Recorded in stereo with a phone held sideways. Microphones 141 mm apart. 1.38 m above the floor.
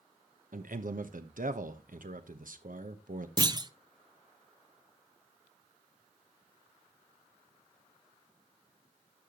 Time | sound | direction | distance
0.5 | a man speaking | 75° right (ahead or behind) | 1.1 m
3.4 | a clunk | 30° right (ahead or behind) | 0.6 m